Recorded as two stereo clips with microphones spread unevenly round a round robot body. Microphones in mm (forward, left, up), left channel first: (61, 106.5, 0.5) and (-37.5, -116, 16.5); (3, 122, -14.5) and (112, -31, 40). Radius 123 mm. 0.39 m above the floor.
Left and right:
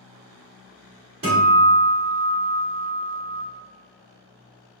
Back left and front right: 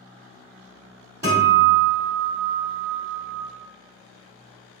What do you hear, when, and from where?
1.2 s a guitar: 145° right, 1.4 m